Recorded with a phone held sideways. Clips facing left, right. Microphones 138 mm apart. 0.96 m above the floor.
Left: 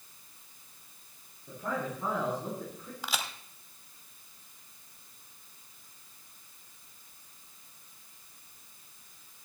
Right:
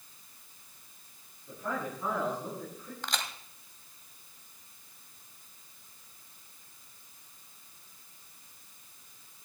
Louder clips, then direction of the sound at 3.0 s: Left 1 dB; 5° left (ahead or behind).